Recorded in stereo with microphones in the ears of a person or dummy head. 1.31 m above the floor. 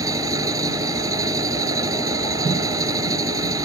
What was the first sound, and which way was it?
An engine running, 15° right (ahead or behind).